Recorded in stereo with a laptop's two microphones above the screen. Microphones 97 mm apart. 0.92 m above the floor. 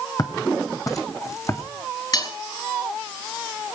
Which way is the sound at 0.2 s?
40° left (ahead or behind).